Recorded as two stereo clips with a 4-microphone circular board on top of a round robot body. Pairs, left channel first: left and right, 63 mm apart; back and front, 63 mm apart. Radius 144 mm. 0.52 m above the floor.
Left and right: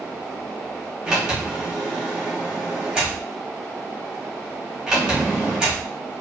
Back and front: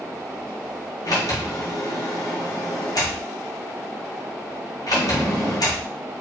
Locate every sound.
1.0 s a sliding door: 170° right, 1.2 m